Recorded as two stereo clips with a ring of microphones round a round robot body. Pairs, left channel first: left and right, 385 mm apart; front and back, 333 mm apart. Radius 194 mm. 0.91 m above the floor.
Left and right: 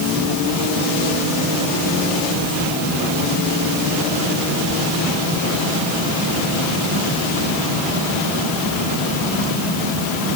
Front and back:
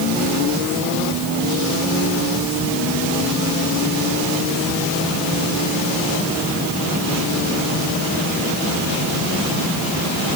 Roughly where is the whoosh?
No whoosh in this recording.